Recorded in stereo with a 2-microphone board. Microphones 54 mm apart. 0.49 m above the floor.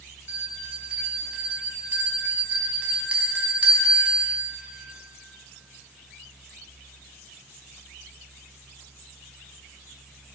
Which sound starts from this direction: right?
A bell, at 0.3 s.